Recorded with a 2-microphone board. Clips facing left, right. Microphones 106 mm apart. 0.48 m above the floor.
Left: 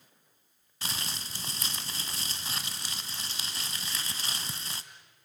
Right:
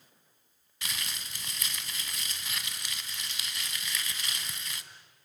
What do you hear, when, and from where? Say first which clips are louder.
0.8 s crumpling: left 2 dB; 35° left (ahead or behind), 1.0 m